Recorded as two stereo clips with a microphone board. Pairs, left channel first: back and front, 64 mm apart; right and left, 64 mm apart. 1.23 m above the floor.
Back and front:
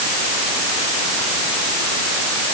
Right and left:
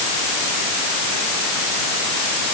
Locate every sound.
Only background noise.